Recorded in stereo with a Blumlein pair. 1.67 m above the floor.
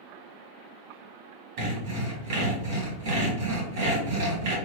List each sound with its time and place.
1.6 s sawing: 45° right, 1.4 m